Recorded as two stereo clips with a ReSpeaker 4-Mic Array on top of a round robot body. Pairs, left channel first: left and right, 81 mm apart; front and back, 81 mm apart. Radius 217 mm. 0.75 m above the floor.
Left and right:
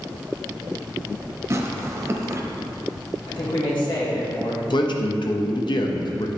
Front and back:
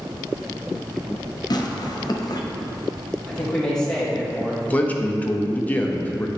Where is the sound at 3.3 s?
80° left, 2.5 m.